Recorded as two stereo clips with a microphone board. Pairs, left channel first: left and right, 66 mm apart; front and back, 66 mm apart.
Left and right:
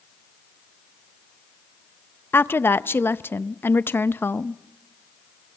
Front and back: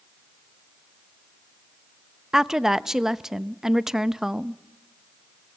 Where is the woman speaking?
105° left, 0.5 m.